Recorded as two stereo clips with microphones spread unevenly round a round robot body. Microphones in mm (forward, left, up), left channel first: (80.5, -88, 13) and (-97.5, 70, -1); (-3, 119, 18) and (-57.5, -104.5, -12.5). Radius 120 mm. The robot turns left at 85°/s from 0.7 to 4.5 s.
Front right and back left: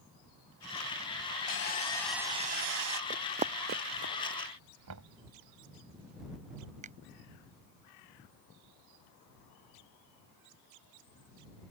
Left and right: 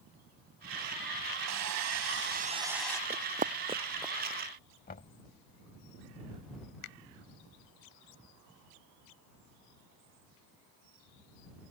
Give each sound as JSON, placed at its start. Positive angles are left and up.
{"t": 1.5, "sound": "sawing", "azimuth_deg": -80}
{"t": 3.1, "sound": "running footsteps", "azimuth_deg": -170}
{"t": 4.9, "sound": "knocking", "azimuth_deg": 130}
{"t": 6.8, "sound": "a finger snap", "azimuth_deg": 80}